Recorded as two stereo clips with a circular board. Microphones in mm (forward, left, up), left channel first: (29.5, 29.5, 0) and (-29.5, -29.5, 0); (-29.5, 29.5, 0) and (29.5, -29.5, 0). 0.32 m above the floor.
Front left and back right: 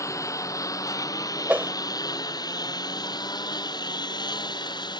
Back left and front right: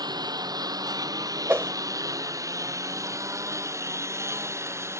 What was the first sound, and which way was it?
A lawn mower, 10° right.